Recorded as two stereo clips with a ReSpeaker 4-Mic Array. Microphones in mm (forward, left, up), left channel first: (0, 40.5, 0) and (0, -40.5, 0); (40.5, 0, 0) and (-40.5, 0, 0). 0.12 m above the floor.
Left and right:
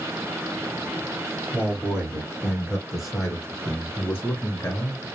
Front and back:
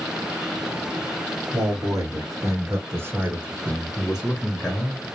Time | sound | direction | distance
1.5 | a man speaking | 160° right | 2 m